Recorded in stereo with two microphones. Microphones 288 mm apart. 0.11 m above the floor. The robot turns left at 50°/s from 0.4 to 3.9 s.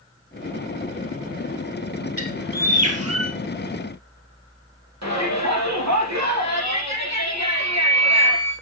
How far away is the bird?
About 1.8 m.